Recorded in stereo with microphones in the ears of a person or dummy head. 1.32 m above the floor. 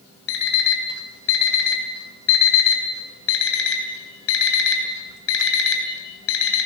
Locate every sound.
0.3 s an alarm clock: 70° left (ahead or behind), 3 m